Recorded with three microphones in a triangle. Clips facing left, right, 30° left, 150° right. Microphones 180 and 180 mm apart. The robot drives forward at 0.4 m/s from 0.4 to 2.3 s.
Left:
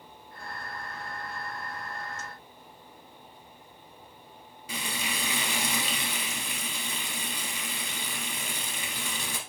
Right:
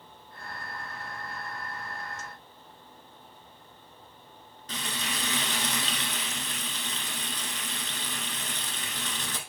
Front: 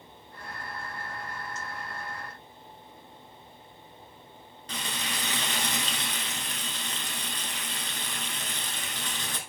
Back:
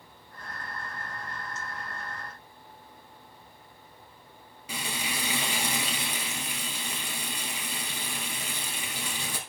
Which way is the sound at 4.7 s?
150° left.